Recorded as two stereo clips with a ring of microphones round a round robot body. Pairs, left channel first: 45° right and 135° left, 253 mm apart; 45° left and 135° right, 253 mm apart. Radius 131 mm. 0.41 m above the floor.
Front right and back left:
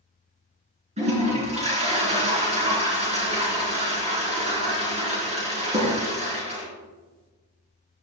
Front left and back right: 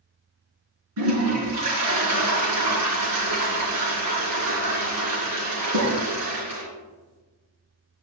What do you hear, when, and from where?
1.0 s a toilet flushing: 160° right, 4 m